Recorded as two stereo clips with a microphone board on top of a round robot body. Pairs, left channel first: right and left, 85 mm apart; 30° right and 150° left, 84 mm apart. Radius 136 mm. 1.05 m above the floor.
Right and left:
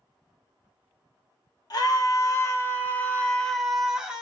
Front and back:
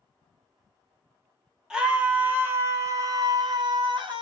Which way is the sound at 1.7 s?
130° right.